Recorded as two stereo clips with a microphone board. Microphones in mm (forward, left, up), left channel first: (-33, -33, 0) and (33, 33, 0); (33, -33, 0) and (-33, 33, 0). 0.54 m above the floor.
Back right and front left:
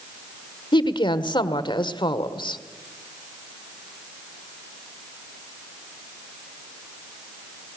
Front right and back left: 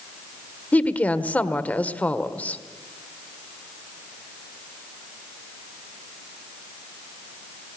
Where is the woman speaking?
115° right, 1.5 m.